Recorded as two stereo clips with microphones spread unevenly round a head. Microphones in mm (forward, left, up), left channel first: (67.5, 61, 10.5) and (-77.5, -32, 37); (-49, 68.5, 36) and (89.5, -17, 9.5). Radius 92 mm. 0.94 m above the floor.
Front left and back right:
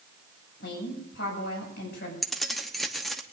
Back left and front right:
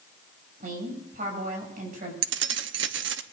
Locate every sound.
0.6 s a woman speaking: 5° left, 7 m
2.2 s keys jangling: 55° right, 0.8 m